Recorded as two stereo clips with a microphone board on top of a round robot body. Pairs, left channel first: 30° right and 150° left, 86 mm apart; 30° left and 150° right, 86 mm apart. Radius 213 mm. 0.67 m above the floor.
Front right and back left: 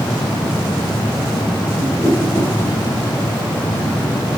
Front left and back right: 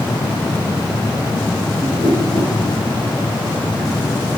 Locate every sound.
1.8 s a whoosh: 35° left, 2.5 m